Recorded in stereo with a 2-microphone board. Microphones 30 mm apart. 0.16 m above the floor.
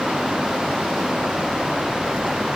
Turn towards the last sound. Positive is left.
No sound to turn to.